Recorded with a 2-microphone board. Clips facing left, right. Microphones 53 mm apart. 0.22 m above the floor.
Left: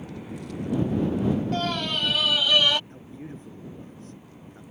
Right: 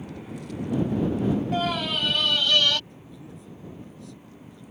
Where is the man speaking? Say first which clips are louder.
Left 4 dB; 45° left (ahead or behind).